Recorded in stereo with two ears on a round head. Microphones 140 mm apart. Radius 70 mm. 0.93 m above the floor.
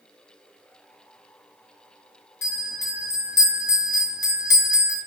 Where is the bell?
20° left (ahead or behind), 0.7 m.